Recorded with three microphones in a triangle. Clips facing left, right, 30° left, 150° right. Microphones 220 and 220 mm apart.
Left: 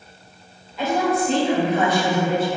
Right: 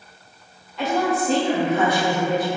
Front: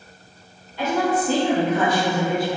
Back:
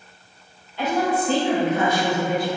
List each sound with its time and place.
0.8 s a woman speaking: straight ahead, 1.9 m; by 2.6 s 30° right, 1.4 m